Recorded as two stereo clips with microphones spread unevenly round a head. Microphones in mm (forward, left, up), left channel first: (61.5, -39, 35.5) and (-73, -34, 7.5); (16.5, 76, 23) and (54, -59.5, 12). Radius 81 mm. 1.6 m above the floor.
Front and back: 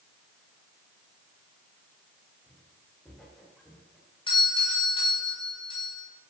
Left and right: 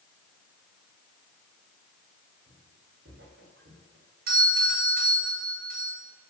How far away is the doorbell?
About 8 m.